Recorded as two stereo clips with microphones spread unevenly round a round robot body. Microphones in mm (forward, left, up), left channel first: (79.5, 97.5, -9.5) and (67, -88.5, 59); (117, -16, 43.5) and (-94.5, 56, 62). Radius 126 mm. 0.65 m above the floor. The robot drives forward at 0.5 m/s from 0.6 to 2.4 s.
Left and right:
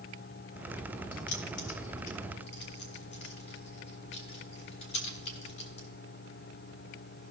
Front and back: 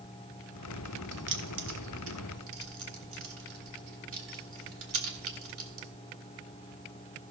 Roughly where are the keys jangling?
Behind left.